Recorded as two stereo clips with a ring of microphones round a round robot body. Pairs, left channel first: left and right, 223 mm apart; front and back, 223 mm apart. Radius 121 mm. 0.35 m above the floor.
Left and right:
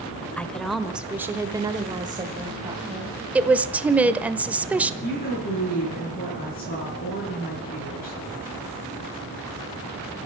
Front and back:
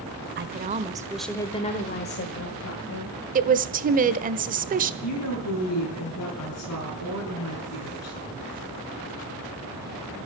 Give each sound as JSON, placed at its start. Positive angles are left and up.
{"t": 0.4, "sound": "a woman speaking", "azimuth_deg": 170, "distance_m": 1.4}
{"t": 3.4, "sound": "a woman speaking", "azimuth_deg": -170, "distance_m": 1.2}
{"t": 5.0, "sound": "a woman speaking", "azimuth_deg": 35, "distance_m": 6.5}